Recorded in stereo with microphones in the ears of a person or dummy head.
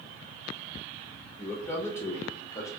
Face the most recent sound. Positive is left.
turn(degrees=20)  # may be behind; listen again after turning